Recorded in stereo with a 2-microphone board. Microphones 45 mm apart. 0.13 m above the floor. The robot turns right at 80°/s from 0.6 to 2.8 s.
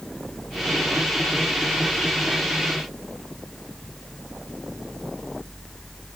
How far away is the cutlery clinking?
I don't hear cutlery clinking.